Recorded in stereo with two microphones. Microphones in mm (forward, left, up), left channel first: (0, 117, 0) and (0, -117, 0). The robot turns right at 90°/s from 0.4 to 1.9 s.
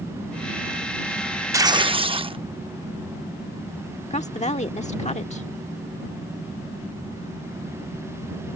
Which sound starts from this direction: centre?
Tearing paper, at 1.5 s.